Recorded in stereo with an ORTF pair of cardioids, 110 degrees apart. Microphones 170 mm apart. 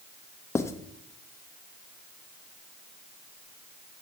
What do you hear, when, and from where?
0.6 s writing: 15° left, 0.6 m